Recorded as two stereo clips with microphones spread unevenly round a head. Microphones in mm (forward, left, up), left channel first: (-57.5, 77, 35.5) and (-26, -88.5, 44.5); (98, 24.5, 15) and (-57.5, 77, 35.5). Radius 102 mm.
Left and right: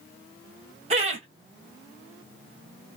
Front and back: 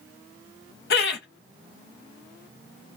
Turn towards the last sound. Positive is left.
turn(degrees=-30)